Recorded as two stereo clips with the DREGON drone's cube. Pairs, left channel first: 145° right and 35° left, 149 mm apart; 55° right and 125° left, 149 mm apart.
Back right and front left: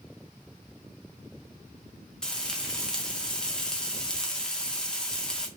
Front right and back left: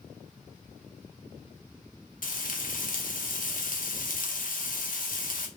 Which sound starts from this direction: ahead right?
Frying, at 2.2 s.